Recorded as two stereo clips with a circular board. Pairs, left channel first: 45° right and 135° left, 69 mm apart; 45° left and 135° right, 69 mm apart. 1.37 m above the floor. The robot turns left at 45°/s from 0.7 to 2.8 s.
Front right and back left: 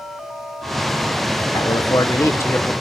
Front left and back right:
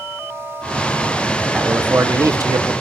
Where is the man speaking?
60° right, 0.9 m; by 2.7 s 115° right, 0.9 m.